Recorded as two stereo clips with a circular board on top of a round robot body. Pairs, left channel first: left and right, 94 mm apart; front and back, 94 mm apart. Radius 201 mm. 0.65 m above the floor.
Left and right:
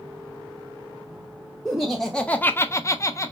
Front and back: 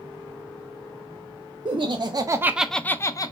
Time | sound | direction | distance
1.6 | laughter | 175° right | 0.7 m